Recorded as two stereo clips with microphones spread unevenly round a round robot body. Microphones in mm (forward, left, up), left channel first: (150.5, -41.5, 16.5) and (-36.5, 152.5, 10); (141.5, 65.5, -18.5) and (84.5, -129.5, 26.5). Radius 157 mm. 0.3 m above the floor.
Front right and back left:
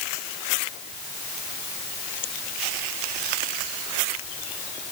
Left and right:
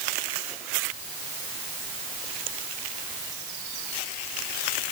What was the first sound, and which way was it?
Only background noise.